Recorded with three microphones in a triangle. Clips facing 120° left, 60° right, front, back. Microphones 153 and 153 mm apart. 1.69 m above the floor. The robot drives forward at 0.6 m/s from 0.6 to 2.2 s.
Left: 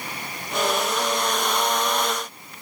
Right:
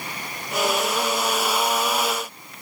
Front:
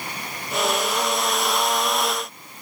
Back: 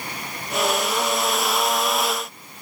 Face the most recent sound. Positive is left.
No sound to turn to.